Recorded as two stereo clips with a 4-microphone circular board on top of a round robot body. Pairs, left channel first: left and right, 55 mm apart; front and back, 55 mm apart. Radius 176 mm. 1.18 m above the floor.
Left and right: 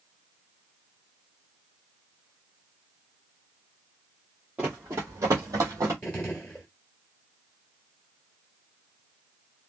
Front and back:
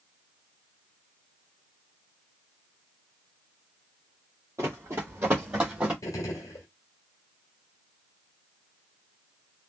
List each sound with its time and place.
4.6 s running footsteps: 160° right, 1.2 m; by 5.9 s 110° right, 1.9 m
6.0 s a gunshot: 20° left, 1.4 m